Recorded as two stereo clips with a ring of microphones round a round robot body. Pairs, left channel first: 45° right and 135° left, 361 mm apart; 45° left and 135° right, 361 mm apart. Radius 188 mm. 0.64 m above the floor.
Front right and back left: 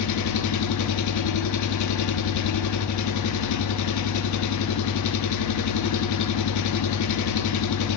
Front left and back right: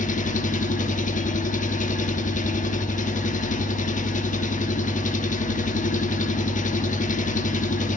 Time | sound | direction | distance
0.0 | an engine running | 20° right | 1.0 m